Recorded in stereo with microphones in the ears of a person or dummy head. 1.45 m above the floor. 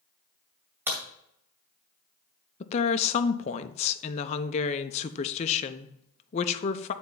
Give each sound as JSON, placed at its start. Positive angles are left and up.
{"t": 0.9, "sound": "a crack", "side_deg": -5, "distance_m": 2.0}
{"t": 2.6, "sound": "a woman speaking", "side_deg": 35, "distance_m": 0.7}